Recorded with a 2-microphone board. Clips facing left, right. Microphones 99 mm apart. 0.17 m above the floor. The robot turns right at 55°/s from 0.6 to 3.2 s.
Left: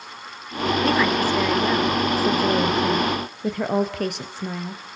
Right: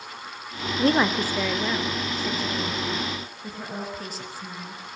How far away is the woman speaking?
About 3 m.